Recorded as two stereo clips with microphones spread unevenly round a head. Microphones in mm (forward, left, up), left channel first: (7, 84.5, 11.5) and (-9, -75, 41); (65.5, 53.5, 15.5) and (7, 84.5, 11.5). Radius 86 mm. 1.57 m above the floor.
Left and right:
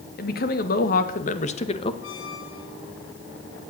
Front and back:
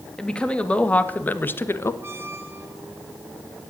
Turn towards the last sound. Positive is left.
turn(degrees=95)